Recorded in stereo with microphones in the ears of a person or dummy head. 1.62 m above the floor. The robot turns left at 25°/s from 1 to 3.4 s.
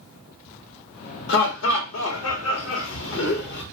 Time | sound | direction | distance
1.3 | laughter | 115° left | 1.0 m